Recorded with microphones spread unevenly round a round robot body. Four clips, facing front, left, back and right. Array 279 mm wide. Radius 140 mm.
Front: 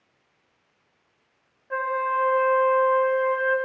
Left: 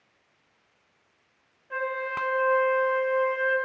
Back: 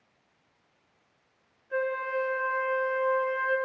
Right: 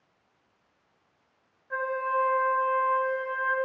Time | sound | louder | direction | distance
1.7 | a flute | right 2 dB, front 5 dB | straight ahead | 7 m